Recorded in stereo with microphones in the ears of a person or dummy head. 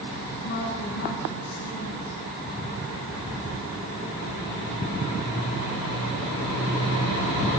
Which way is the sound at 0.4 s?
55° left (ahead or behind).